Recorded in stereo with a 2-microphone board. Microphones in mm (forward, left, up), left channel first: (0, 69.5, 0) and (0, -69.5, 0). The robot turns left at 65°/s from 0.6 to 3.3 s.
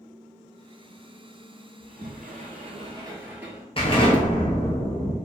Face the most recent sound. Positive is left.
turn(degrees=40)  # may be behind; listen again after turning